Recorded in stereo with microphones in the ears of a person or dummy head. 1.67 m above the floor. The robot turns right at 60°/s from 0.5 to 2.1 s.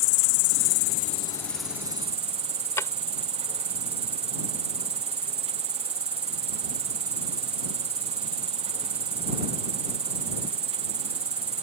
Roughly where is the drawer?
Centre.